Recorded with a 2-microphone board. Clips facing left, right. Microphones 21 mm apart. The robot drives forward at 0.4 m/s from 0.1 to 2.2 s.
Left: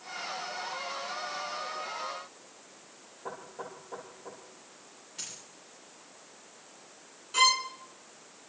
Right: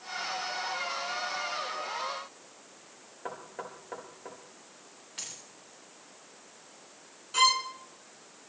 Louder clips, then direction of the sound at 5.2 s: Right 1 dB; 75° right (ahead or behind).